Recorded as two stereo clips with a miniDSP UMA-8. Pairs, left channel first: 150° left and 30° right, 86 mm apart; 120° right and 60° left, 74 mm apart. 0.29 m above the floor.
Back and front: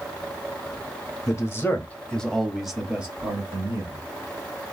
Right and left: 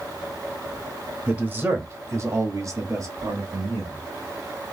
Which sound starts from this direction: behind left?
A man speaking, at 1.3 s.